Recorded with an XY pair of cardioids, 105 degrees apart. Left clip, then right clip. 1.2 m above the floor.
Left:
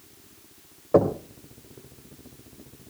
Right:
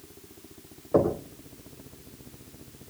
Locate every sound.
0.9 s knocking: 40° left, 4 m